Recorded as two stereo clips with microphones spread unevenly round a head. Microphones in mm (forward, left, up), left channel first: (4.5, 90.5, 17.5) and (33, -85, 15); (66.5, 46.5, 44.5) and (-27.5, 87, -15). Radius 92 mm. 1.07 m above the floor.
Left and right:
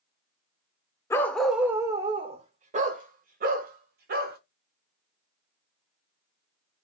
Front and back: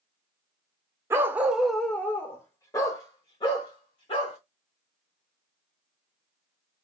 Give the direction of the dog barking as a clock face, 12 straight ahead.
10 o'clock.